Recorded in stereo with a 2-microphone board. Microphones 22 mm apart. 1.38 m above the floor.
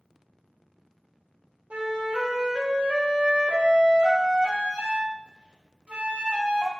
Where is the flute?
65° right (ahead or behind), 0.7 m.